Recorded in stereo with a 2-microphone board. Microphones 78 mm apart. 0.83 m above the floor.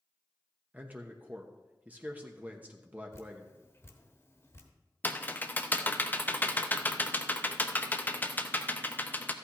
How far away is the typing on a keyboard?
About 0.7 m.